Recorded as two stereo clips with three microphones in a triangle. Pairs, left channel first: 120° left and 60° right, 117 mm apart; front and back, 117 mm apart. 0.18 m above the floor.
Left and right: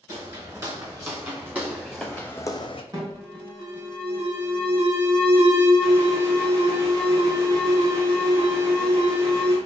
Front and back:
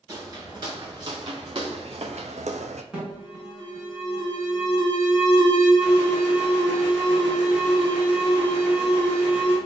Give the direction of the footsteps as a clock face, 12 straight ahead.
4 o'clock.